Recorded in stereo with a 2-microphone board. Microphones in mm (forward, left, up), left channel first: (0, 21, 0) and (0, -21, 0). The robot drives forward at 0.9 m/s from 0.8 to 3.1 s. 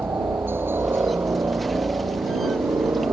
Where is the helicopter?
65° right (ahead or behind); by 3.1 s 60° right (ahead or behind).